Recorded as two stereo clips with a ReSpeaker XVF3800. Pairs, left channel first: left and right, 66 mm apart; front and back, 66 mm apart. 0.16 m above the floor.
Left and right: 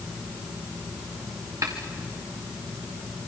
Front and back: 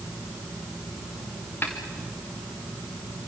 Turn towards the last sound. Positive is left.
turn(degrees=-55)